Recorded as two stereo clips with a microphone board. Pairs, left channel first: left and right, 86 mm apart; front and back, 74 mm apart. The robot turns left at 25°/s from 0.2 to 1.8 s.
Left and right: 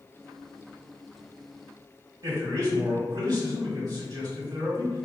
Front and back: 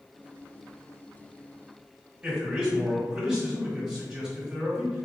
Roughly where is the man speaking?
Right.